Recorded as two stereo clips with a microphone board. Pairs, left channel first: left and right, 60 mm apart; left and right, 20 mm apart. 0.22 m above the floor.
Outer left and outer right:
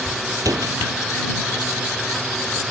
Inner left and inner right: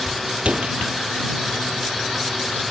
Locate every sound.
0.4 s a door slam: 70° right (ahead or behind)